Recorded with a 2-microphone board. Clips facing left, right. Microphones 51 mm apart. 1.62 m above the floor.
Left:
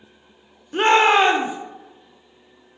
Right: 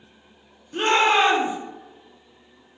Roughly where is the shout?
Left.